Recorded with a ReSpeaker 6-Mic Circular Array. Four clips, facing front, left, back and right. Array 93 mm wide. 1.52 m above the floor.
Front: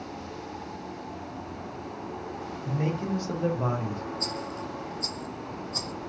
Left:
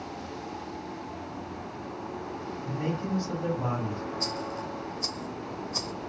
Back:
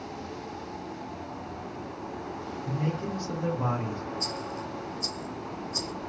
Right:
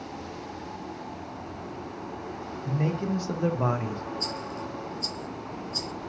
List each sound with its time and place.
2.6 s a man speaking: 45° right, 1.6 m; by 4.0 s 135° right, 0.7 m
4.2 s a rattle: 70° left, 0.6 m